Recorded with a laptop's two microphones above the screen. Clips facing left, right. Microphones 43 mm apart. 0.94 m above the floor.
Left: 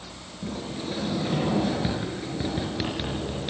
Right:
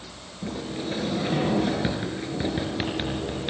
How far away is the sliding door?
About 3 m.